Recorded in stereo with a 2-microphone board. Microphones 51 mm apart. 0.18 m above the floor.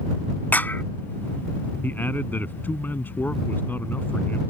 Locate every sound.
0.5 s a clap: 35° left (ahead or behind)
1.8 s a man speaking: 40° left (ahead or behind)